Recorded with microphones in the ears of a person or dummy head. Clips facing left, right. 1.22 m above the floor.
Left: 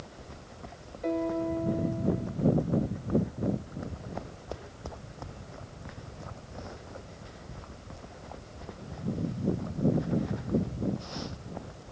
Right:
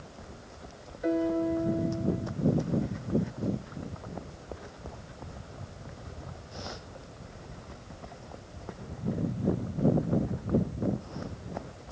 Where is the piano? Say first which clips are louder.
Right 2 dB; 5° right (ahead or behind).